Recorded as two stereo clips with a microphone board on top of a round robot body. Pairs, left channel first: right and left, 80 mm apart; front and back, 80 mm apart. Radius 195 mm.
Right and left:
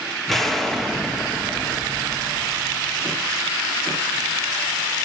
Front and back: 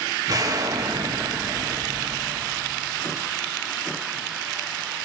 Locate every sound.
0.3 s an explosion: straight behind, 1.8 m